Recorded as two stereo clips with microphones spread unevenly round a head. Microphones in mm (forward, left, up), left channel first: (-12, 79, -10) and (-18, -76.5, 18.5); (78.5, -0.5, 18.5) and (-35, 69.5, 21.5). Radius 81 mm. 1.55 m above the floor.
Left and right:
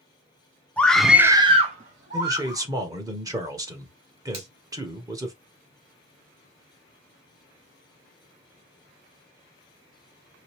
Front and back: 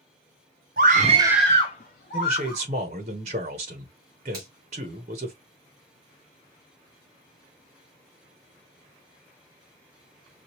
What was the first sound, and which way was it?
A scream, 175° left.